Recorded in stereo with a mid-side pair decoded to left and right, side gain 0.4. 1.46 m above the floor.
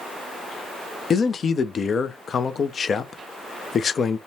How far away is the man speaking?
About 0.6 m.